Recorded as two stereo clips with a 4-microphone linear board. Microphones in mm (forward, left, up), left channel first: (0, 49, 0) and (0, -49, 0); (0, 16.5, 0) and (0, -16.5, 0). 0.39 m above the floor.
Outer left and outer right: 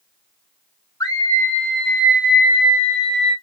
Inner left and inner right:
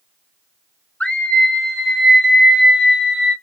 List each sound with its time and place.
1.0 s a scream: 40° left (ahead or behind), 1.1 m; by 3.3 s 45° right (ahead or behind), 1.7 m